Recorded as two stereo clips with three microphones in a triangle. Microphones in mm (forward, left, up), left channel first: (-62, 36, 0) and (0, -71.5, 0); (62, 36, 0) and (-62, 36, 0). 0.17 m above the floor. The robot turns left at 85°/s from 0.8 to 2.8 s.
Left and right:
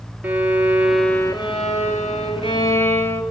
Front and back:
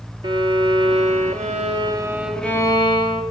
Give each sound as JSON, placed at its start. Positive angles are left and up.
{"t": 0.2, "sound": "a violin", "azimuth_deg": -140, "distance_m": 0.9}